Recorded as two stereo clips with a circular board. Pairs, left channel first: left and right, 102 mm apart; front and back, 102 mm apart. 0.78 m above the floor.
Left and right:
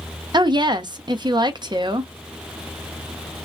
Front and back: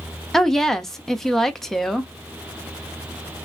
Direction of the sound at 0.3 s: 85° right.